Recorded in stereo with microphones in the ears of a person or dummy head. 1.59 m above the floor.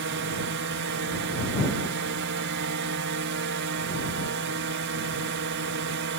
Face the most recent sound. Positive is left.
turn(degrees=-60)  # may be behind; listen again after turning